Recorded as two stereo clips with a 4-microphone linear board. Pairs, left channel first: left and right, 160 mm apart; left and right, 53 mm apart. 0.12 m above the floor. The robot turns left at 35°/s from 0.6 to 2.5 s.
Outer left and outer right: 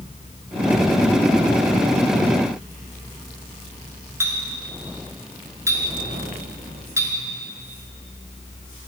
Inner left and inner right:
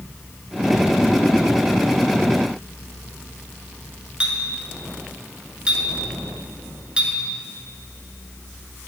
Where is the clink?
20° right (ahead or behind), 1.1 m.